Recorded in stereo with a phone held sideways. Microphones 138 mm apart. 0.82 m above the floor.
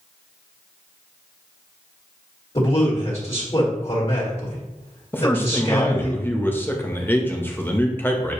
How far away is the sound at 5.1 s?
About 0.7 m.